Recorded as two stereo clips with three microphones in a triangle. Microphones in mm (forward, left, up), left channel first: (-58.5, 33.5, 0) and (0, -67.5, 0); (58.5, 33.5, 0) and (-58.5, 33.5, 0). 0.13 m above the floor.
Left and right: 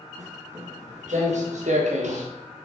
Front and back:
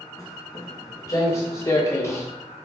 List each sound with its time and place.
0.2 s footsteps: 65° right, 4 m